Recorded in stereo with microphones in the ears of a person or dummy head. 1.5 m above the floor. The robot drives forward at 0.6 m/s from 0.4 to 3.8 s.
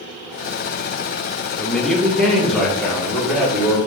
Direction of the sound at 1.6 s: 5° left (ahead or behind).